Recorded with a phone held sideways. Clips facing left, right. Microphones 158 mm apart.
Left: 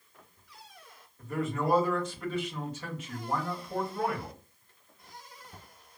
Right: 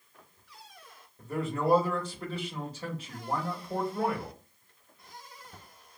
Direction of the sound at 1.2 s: 35° right (ahead or behind).